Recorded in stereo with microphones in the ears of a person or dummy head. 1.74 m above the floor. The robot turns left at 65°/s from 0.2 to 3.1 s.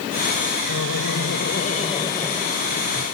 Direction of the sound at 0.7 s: 110° left.